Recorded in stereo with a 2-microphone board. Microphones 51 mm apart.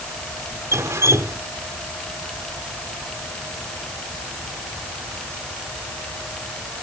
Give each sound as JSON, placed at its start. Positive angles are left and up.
{"t": 0.7, "sound": "dripping", "side_deg": -75}